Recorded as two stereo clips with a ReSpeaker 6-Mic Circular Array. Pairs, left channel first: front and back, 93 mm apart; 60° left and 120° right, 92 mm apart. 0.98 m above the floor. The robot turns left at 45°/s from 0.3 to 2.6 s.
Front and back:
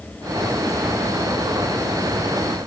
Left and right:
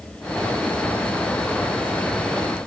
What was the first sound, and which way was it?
Only background noise.